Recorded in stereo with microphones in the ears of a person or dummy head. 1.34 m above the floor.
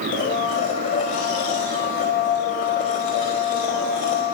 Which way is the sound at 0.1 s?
45° left (ahead or behind).